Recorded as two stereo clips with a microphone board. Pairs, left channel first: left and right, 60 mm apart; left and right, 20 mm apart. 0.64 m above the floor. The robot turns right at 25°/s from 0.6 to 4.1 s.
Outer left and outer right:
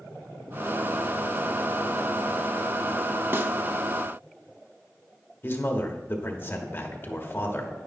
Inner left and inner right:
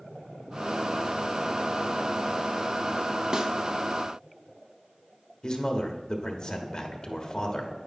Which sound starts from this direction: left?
A man speaking, at 5.4 s.